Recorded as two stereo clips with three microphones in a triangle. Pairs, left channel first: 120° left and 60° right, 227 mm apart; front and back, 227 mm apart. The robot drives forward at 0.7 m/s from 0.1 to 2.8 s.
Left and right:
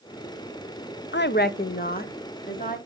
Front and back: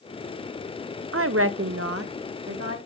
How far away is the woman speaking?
About 0.5 m.